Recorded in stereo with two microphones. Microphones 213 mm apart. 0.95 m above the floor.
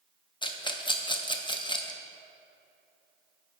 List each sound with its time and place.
0.4 s a rattle: 20° left (ahead or behind), 0.6 m